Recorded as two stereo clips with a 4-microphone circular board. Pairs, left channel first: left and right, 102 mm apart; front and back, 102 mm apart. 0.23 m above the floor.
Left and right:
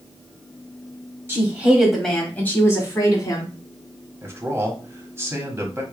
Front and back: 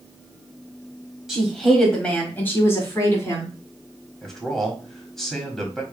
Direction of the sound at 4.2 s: 80° right.